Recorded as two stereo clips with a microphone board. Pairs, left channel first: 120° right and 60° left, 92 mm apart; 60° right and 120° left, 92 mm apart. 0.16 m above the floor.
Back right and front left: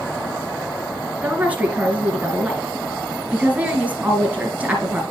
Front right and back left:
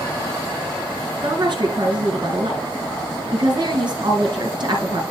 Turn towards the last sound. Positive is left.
turn(degrees=130)